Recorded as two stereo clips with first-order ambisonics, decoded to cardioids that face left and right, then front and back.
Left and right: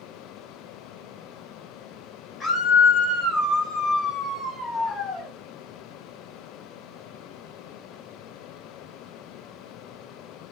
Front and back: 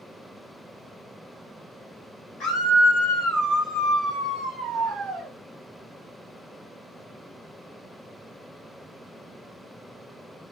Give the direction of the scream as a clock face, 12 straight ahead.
11 o'clock.